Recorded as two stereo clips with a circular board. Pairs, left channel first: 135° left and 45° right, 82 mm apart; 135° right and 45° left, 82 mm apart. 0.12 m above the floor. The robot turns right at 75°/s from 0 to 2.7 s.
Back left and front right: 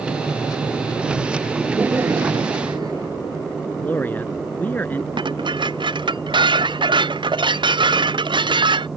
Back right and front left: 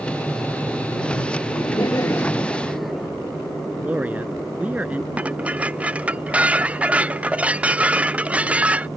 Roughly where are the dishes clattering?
Ahead right.